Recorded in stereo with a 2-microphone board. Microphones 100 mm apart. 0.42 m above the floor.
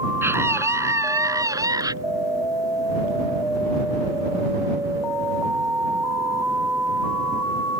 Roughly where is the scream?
Right.